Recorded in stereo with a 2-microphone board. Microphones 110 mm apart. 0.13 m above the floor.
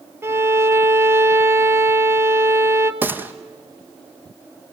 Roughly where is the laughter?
I don't hear laughter.